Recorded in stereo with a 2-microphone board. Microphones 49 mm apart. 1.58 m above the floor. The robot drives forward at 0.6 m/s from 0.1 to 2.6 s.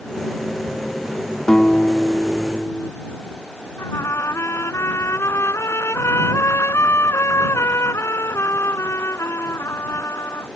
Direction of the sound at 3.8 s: 70° left (ahead or behind).